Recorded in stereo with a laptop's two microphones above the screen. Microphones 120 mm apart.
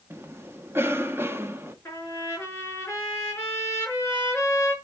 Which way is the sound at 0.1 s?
20° right (ahead or behind).